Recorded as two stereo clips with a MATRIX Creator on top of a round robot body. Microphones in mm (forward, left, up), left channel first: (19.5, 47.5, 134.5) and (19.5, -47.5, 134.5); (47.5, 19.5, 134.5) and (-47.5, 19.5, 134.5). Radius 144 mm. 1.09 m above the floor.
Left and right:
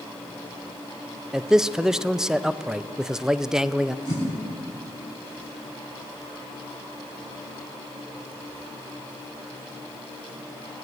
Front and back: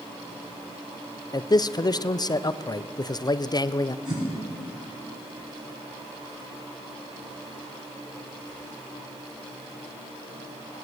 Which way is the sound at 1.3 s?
10° right.